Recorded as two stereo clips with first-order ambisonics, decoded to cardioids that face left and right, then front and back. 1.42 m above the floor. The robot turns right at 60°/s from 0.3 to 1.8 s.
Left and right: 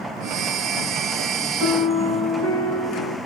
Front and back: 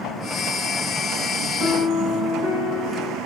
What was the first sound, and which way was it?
A piano, 85° right.